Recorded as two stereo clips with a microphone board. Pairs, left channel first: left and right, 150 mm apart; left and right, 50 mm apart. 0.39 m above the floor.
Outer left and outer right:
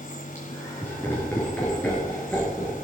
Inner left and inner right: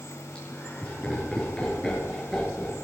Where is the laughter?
20° left (ahead or behind), 5 m; by 2.9 s 5° left (ahead or behind), 6.5 m.